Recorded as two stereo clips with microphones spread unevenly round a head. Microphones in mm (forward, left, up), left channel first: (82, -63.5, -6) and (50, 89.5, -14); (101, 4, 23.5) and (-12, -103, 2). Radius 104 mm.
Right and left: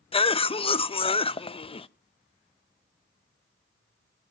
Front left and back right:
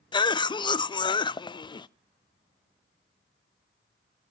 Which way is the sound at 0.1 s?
20° right.